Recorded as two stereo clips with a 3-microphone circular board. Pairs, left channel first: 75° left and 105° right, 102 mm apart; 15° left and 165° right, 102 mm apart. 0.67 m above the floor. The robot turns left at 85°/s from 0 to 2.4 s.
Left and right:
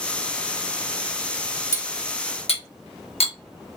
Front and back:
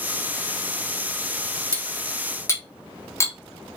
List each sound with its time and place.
1.7 s cutlery clinking: 135° left, 0.7 m; by 3.4 s 80° left, 0.7 m